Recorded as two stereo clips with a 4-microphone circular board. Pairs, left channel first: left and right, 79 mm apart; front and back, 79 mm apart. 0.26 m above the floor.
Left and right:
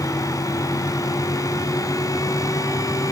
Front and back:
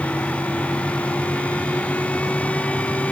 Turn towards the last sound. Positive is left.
No sound to turn to.